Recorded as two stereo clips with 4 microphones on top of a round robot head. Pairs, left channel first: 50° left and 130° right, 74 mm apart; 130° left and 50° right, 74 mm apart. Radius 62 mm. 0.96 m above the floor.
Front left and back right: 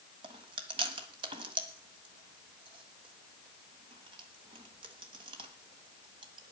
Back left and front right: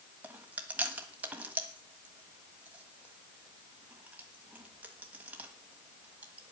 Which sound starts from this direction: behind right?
Chewing, at 0.2 s.